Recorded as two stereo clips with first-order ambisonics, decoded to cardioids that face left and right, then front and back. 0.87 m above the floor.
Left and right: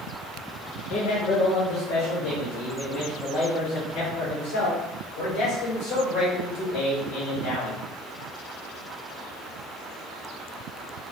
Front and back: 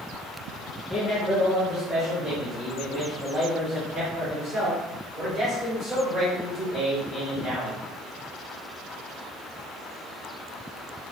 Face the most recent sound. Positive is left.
turn(degrees=105)